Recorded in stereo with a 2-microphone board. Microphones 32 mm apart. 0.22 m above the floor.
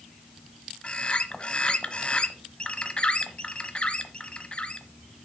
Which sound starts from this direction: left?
A bird, at 0.8 s.